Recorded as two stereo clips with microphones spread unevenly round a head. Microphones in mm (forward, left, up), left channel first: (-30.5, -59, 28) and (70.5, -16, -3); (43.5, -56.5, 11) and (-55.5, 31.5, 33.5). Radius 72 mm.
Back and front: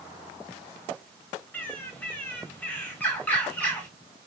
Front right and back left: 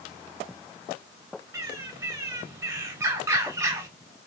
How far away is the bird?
About 0.8 m.